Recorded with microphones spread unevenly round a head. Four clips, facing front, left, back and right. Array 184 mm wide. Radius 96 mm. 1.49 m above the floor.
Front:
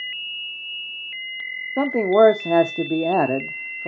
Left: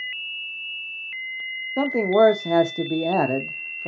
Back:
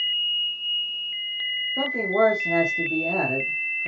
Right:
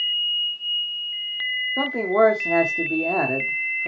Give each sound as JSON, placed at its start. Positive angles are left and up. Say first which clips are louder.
{"t": 1.8, "sound": "a man speaking", "louder": "left 2 dB, front 7 dB", "azimuth_deg": 0, "distance_m": 0.8}